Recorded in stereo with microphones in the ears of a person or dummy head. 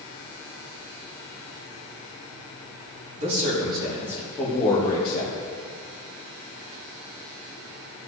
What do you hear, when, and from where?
3.2 s a man speaking: 40° right (ahead or behind), 2.5 m; by 5.4 s 45° left (ahead or behind), 2 m